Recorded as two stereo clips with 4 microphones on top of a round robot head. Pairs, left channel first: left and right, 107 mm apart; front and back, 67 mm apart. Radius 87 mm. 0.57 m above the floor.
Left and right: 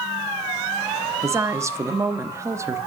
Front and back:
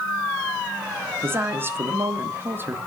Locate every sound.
1.2 s a woman speaking: 145° right, 1.2 m